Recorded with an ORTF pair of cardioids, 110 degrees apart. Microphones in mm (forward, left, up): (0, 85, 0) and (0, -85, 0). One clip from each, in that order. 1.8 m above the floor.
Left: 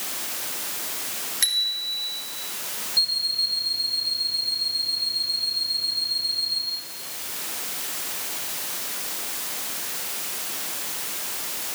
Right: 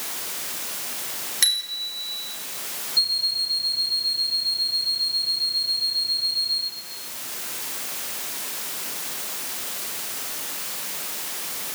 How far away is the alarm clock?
About 5.5 m.